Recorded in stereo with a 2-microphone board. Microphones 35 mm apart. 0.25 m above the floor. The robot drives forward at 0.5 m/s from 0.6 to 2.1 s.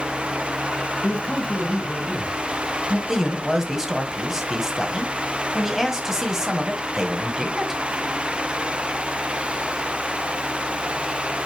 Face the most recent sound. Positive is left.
turn(degrees=-15)  # may be behind; listen again after turning